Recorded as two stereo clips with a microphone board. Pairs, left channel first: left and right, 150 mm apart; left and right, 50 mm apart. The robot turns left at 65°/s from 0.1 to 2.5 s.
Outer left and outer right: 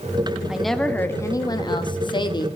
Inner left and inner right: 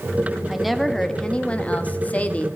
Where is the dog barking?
No dog barking in this recording.